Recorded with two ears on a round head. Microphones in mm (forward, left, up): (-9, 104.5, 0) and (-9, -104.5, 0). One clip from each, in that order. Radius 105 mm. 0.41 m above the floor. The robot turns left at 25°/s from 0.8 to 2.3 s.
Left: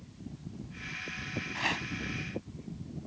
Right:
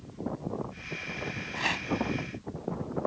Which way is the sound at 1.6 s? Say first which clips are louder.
Right 2 dB; centre (ahead or behind).